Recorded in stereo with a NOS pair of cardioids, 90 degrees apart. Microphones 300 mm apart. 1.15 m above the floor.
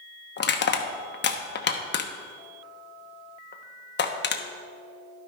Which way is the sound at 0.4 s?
35° left.